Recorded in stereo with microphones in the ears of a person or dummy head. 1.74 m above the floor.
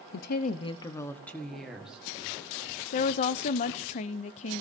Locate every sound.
0.1 s a woman speaking: 65° left (ahead or behind), 0.8 m; by 2.0 s 5° right (ahead or behind), 2 m
2.9 s a woman speaking: 30° left (ahead or behind), 0.6 m